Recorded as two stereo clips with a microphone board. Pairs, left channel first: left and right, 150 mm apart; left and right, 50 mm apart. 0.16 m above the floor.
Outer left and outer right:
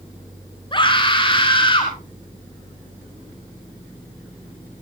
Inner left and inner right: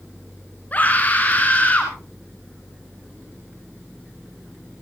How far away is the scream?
About 2 m.